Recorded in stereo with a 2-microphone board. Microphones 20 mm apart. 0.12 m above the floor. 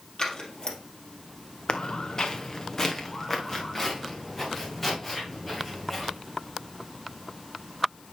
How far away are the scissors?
About 2 m.